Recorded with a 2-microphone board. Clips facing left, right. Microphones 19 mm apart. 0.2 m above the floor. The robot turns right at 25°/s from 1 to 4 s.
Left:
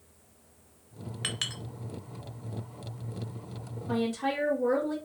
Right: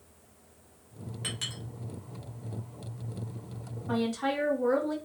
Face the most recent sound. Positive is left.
turn(degrees=-30)  # may be behind; listen again after turning